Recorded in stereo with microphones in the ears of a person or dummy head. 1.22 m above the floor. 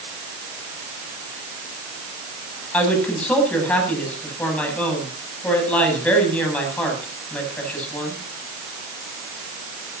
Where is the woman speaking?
10° left (ahead or behind), 8.5 m.